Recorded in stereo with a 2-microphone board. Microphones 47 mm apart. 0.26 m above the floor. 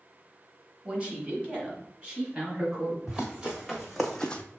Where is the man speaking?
20° right (ahead or behind), 1.2 m; by 3.0 s 30° right (ahead or behind), 3.5 m.